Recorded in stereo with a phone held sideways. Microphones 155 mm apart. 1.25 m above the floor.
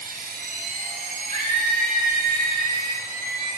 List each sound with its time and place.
0.0 s a machine running: 65° right (ahead or behind), 0.9 m
1.3 s a scream: 50° right (ahead or behind), 3.5 m